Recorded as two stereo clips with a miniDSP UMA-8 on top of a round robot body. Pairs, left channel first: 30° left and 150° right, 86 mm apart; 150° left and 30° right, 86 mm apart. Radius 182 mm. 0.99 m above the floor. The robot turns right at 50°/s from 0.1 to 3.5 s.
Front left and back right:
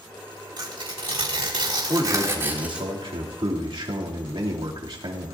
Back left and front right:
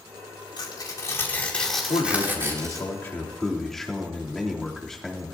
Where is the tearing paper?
Straight behind, 4.5 m; by 2.9 s 65° right, 4.5 m.